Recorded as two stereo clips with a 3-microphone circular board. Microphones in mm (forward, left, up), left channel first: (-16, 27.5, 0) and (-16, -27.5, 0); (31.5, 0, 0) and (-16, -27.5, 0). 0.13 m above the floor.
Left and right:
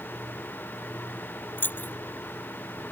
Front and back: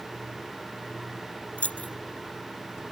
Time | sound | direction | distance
1.6 | keys jangling | 75° left | ?